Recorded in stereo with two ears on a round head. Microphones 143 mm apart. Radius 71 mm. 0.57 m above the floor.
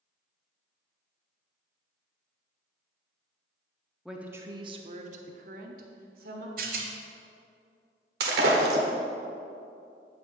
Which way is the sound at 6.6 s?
60° right (ahead or behind).